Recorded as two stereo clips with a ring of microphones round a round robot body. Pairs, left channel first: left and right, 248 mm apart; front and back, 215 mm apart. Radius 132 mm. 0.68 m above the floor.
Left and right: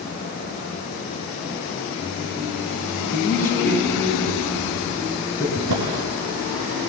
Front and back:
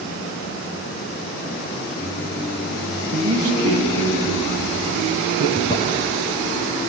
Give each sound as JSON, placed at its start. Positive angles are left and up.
{"t": 3.1, "sound": "a man speaking", "azimuth_deg": 170, "distance_m": 7.0}
{"t": 5.5, "sound": "a drawer", "azimuth_deg": -75, "distance_m": 3.5}